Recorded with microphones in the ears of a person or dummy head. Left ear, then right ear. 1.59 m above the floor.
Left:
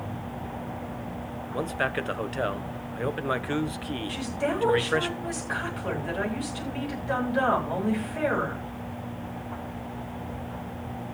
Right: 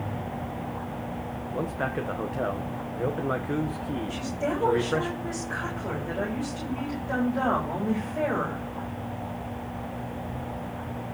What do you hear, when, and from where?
1.5 s a man speaking: 85° left, 1.2 m
4.1 s a woman speaking: 80° left, 8 m